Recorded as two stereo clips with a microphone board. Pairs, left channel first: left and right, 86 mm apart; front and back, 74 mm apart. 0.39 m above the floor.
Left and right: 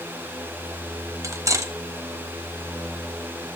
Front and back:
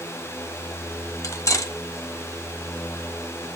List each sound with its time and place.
1.2 s cutlery clinking: 40° right, 1.2 m